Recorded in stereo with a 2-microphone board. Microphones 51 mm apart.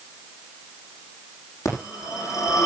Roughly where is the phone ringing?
Left.